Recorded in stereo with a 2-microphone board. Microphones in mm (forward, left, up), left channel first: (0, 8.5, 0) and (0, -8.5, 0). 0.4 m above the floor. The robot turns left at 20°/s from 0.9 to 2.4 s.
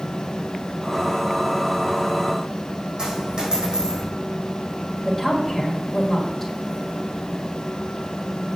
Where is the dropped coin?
50° right (ahead or behind), 4.5 m.